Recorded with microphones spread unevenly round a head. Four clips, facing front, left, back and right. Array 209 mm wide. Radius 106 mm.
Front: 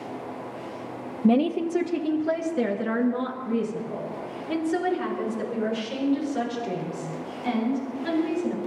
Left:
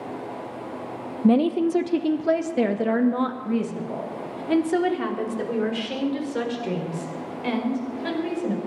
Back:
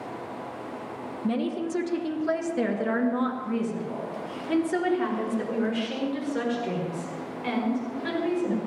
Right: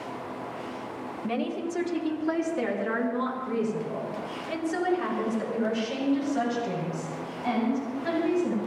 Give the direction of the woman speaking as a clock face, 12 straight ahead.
10 o'clock.